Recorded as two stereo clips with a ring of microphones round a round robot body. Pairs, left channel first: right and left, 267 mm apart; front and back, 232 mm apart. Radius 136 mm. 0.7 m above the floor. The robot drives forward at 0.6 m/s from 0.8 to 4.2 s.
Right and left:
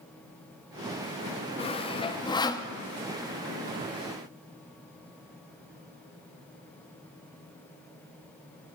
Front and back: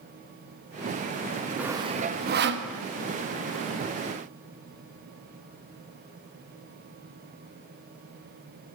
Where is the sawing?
105° right, 0.6 m; by 2.7 s 165° right, 0.9 m.